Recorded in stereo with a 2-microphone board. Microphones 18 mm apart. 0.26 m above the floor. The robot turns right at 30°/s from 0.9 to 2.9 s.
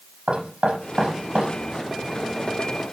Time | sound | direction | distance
0.3 | knocking | 80° right | 6.5 m